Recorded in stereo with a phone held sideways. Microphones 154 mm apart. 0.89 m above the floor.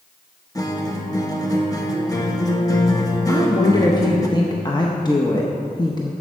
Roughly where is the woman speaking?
Left.